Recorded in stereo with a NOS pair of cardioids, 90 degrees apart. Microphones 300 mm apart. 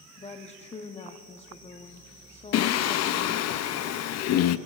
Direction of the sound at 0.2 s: 20° left.